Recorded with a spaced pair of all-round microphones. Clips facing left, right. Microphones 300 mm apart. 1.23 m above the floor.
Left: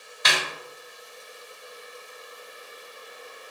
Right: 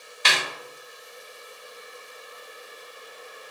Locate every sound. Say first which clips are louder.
0.2 s a snare drum: even; 35° right (ahead or behind), 1.1 m